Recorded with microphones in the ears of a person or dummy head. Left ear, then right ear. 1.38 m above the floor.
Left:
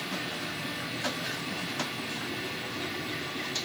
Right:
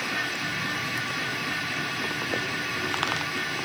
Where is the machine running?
60° right (ahead or behind), 2 m.